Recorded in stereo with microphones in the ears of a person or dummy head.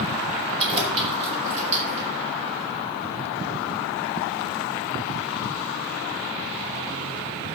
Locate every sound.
0.6 s keys jangling: 30° right (ahead or behind), 3.5 m; by 2.1 s 35° right (ahead or behind), 4.5 m